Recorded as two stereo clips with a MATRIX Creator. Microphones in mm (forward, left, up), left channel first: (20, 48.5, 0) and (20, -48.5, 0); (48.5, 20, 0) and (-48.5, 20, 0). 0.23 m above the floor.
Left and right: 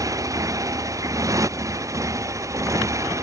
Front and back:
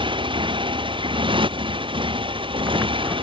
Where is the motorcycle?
145° right; by 3.2 s 150° right.